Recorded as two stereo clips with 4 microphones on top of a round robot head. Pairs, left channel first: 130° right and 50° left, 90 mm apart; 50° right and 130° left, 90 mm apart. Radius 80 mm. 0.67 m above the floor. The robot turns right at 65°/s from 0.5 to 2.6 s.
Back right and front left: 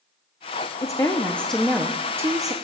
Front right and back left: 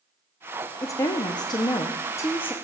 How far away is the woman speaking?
About 0.7 m.